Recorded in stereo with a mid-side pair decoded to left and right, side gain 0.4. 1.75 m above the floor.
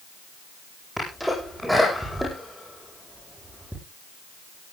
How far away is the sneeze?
About 9.5 m.